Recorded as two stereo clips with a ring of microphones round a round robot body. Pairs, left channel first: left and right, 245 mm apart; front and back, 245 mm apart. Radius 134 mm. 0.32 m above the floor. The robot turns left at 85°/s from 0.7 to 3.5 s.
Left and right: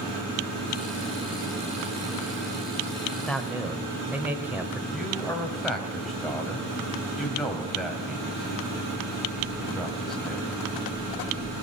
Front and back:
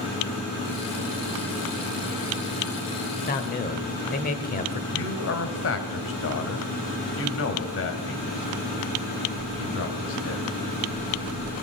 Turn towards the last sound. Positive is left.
turn(degrees=0)